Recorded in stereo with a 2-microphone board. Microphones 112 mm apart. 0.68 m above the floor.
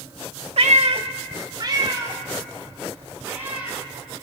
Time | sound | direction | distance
0.6 | a cat meowing | 65° right (ahead or behind) | 0.6 m